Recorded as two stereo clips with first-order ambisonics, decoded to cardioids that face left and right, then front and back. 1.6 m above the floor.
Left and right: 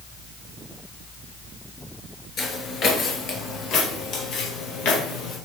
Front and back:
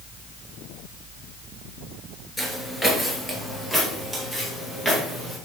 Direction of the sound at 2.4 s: 75° left.